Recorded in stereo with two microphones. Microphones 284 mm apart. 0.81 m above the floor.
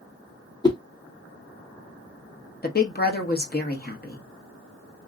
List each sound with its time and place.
0.6 s a whoosh: 15° left (ahead or behind), 0.6 m
2.6 s a woman speaking: 35° left (ahead or behind), 1.0 m